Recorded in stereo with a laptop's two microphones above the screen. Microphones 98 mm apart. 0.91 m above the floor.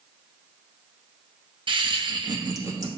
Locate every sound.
1.7 s laughter: 60° right (ahead or behind), 0.7 m; by 2.9 s 35° right (ahead or behind), 1.4 m